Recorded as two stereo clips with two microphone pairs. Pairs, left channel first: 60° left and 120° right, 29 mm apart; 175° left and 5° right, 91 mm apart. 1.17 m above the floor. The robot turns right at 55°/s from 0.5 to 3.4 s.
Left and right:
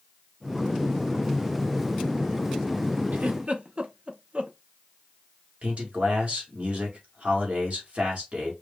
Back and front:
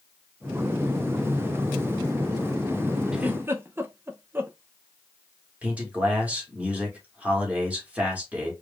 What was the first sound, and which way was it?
A giggle, 90° right.